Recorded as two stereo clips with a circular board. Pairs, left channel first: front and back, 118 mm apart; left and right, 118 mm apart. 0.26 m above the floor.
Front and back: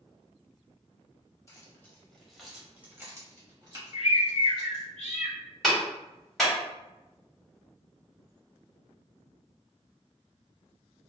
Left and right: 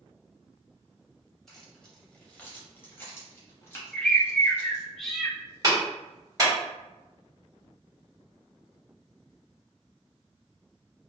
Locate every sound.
1.5 s keys jangling: 10° left, 1.0 m; by 4.8 s 150° left, 1.6 m
3.9 s a bird: 5° left, 0.5 m
5.6 s a clap: 80° right, 1.3 m